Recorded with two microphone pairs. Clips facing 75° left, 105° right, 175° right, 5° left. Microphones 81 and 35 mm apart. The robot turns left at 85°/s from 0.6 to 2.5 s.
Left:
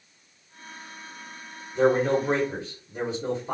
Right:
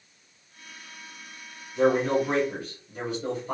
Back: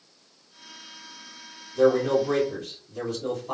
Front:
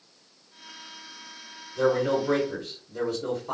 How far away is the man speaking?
About 1.7 m.